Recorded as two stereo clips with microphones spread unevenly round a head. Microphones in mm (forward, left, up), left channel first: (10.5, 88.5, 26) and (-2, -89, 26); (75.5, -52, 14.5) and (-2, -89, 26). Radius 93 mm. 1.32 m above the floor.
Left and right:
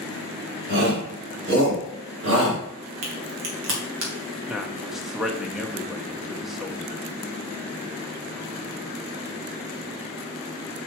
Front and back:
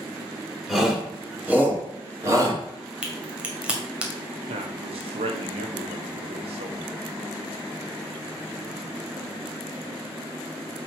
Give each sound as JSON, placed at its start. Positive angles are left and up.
{"t": 0.7, "sound": "a shout", "azimuth_deg": -70, "distance_m": 4.0}
{"t": 3.0, "sound": "a crack", "azimuth_deg": -80, "distance_m": 2.0}
{"t": 4.5, "sound": "a man speaking", "azimuth_deg": 180, "distance_m": 1.0}